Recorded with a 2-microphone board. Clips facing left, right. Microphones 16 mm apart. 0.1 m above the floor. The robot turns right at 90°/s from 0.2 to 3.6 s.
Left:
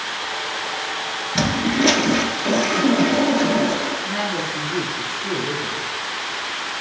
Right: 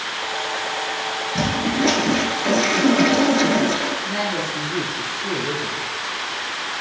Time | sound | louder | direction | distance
1.4 | a toilet flushing | left 3 dB | 90° left | 0.7 m
4.0 | a man speaking | even | 30° right (ahead or behind) | 1.7 m